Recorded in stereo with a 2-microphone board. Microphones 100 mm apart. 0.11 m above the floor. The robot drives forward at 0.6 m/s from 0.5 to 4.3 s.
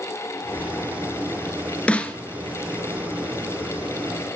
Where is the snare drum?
15° left (ahead or behind), 0.7 m; by 2.2 s 10° left (ahead or behind), 0.8 m.